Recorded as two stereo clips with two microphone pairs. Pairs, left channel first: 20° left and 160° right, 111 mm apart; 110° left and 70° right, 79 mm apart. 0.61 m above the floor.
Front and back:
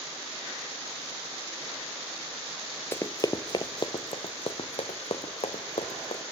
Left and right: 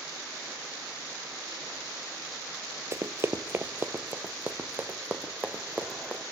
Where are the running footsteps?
40° right, 0.7 m; by 6.2 s straight ahead, 2.5 m.